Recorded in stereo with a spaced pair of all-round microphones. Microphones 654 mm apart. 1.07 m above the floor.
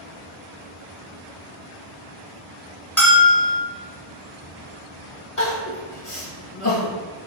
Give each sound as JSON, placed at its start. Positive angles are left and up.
{"t": 3.0, "sound": "a bell", "side_deg": 0, "distance_m": 1.4}
{"t": 5.4, "sound": "crying", "side_deg": 50, "distance_m": 1.5}